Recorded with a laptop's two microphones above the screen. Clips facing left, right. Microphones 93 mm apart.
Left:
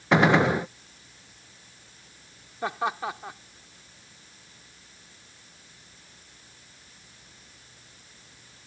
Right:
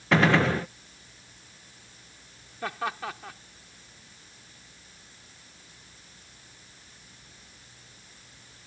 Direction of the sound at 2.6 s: 20° left (ahead or behind).